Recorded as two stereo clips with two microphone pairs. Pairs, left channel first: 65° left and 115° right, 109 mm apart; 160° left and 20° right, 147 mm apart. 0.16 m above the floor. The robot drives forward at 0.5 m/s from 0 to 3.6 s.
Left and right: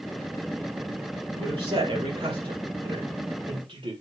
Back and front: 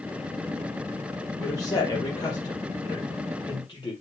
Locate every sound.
1.4 s a man speaking: 135° right, 4 m; by 3.9 s 145° right, 5 m